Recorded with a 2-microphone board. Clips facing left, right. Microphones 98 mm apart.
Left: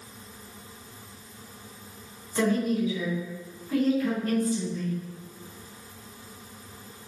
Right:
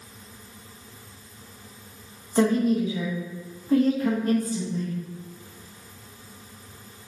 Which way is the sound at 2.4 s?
40° right (ahead or behind).